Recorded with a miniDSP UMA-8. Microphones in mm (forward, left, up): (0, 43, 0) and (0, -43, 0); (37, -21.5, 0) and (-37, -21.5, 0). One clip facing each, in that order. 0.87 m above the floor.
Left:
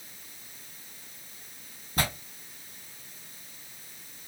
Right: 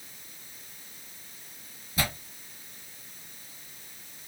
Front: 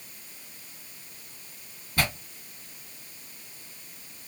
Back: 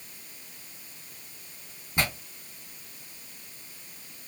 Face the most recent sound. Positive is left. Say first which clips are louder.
# left 1 dB, front 1 dB
turn(degrees=110)